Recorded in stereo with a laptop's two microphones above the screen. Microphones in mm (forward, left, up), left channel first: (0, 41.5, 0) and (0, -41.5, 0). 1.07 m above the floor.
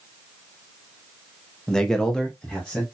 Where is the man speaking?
10° left (ahead or behind), 0.9 m; by 2.8 s 5° left (ahead or behind), 1.2 m.